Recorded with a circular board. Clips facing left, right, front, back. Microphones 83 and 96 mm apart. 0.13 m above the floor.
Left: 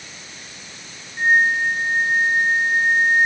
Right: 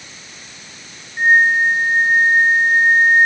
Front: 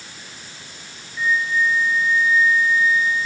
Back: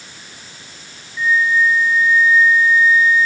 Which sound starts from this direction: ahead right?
A flute, at 1.2 s.